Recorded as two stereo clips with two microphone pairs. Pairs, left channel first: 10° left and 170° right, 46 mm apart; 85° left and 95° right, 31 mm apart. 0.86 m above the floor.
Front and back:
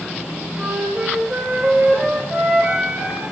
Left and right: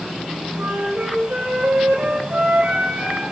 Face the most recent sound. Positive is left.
turn(degrees=-105)